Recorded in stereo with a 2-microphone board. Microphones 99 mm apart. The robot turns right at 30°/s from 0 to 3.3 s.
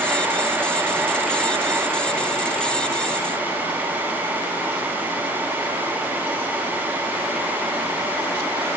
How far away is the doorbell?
No doorbell in this recording.